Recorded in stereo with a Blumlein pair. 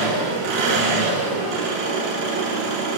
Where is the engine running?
50° right, 8.5 m.